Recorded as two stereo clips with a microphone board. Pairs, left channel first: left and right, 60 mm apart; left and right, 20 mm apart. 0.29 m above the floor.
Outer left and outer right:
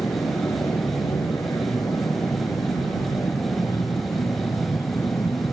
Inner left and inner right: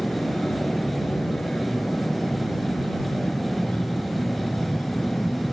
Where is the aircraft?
70° left (ahead or behind); by 5.5 s 65° left (ahead or behind).